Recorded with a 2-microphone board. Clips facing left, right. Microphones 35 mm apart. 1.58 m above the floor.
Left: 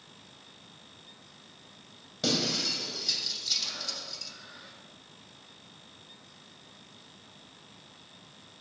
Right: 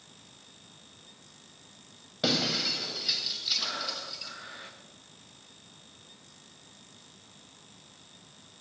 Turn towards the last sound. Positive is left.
turn(degrees=-75)  # may be behind; listen again after turning